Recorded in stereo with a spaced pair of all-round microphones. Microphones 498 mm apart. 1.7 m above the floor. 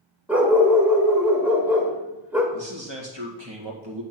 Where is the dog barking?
5° right (ahead or behind), 1.7 m.